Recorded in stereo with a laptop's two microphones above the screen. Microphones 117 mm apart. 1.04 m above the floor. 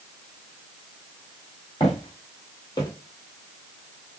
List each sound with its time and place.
1.8 s footsteps: 45° left (ahead or behind), 1.4 m; by 2.9 s 35° left (ahead or behind), 1.4 m